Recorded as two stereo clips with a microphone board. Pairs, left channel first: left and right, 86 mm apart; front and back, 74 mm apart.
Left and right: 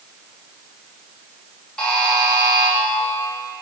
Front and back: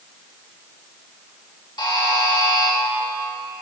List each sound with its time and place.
1.8 s a buzzer: 10° left, 1.1 m